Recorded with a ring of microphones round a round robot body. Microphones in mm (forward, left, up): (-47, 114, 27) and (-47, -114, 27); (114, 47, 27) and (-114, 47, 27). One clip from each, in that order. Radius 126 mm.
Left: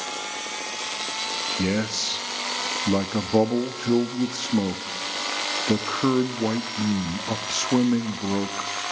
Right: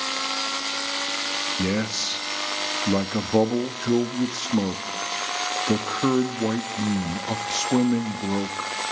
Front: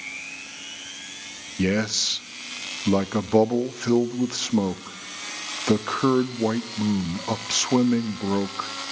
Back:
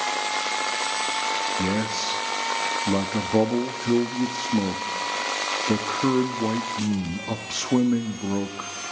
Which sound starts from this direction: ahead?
A man speaking, at 1.6 s.